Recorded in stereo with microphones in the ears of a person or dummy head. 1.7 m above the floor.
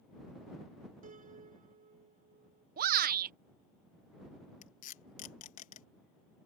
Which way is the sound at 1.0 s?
40° right (ahead or behind).